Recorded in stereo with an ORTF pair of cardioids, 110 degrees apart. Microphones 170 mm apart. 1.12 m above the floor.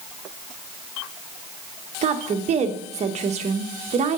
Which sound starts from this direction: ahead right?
A woman speaking, at 2.0 s.